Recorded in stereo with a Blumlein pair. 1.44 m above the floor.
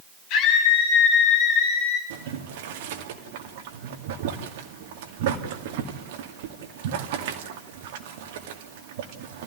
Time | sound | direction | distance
0.3 | a scream | 45° left | 8.5 m
2.1 | boiling | 50° right | 2.5 m